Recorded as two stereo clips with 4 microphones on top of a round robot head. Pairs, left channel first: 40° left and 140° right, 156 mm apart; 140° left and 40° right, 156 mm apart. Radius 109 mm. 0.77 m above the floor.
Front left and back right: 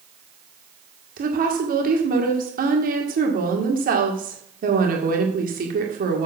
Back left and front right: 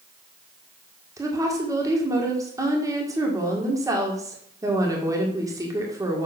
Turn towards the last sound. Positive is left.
turn(degrees=-110)